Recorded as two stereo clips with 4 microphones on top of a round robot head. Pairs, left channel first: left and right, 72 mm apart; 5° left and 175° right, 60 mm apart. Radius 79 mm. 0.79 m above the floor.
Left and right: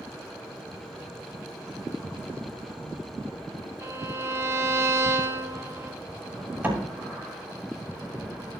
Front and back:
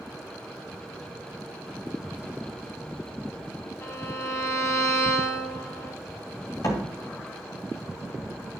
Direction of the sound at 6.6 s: 25° right.